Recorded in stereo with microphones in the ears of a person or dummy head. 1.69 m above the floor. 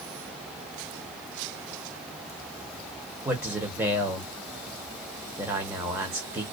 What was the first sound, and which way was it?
A man speaking, 10° right (ahead or behind).